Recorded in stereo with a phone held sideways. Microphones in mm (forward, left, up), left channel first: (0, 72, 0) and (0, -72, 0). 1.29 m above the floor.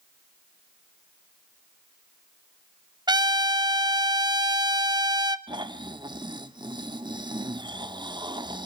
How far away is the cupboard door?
No cupboard door in this recording.